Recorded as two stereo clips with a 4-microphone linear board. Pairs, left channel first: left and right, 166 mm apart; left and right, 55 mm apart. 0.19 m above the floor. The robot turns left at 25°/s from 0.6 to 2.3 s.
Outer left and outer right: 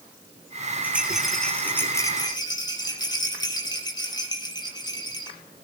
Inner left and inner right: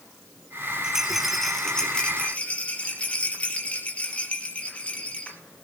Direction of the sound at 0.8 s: 170° right.